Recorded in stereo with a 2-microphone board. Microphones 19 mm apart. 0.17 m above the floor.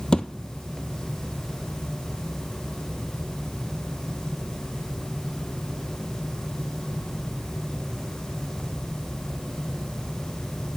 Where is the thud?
50° left (ahead or behind), 0.5 m.